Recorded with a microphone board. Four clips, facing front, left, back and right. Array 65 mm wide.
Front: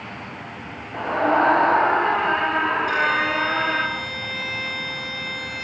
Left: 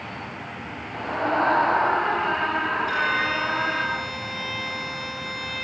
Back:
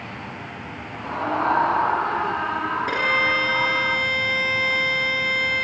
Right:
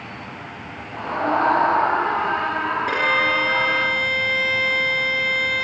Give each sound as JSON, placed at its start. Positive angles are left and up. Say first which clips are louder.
{"t": 0.9, "sound": "a scream", "louder": "right 3 dB, front 6 dB", "azimuth_deg": 0, "distance_m": 6.5}
{"t": 2.9, "sound": "a violin", "louder": "right 4 dB, even", "azimuth_deg": -120, "distance_m": 3.0}